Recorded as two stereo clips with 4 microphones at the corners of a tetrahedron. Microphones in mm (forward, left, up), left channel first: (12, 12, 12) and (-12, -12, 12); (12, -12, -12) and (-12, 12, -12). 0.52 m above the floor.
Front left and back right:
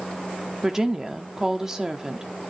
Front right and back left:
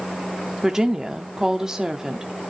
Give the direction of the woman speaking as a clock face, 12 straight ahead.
6 o'clock.